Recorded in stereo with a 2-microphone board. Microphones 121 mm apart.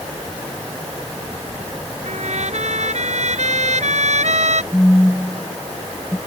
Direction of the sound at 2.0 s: 70° right (ahead or behind).